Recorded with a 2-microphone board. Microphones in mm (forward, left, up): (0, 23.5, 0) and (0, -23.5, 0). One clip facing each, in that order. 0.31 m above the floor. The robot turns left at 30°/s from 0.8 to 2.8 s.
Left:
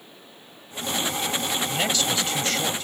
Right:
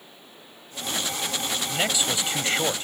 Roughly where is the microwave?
I don't hear a microwave.